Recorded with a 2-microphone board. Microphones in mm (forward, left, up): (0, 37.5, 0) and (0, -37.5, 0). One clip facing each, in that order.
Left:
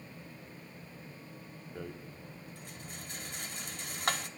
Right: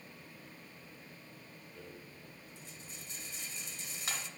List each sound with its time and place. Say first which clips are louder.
1.8 s a rattle: left 8 dB; 60° left (ahead or behind), 0.8 m